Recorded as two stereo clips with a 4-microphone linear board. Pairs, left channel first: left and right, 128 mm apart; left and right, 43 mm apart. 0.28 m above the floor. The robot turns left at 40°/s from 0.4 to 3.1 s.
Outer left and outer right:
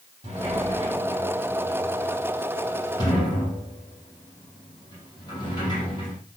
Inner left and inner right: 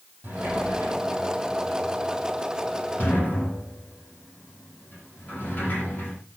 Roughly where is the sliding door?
Right.